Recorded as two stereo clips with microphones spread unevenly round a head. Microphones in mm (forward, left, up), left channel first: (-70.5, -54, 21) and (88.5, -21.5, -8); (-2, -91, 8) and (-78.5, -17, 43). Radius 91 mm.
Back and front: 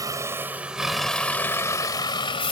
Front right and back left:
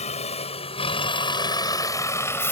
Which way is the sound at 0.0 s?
60° right.